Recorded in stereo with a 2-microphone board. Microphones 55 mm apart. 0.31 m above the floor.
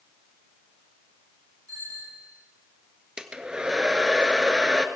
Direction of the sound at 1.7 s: 80° right.